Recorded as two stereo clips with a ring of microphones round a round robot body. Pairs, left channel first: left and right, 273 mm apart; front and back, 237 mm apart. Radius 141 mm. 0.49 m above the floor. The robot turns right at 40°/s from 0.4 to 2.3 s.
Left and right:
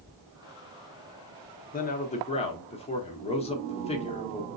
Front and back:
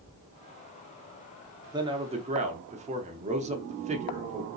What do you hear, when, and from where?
1.7 s a man speaking: 120° left, 1.0 m; by 4.5 s 140° left, 1.0 m